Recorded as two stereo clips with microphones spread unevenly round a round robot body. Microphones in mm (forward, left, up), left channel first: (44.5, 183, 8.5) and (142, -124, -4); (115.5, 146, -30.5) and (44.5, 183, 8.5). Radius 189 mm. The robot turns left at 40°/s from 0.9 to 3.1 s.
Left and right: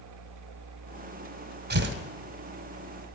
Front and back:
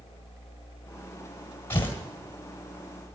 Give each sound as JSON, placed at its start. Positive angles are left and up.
{"t": 1.7, "sound": "tearing paper", "azimuth_deg": -25, "distance_m": 1.4}